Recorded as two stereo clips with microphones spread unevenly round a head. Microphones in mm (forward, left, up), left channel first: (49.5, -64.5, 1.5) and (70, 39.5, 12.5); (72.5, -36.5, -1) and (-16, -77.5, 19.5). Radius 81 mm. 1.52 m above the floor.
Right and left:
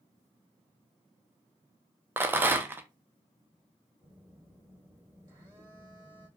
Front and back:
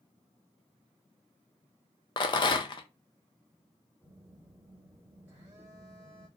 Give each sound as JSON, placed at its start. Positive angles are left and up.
{"t": 2.2, "sound": "a rattle", "azimuth_deg": 40, "distance_m": 0.6}
{"t": 4.0, "sound": "a phone buzzing", "azimuth_deg": 130, "distance_m": 1.7}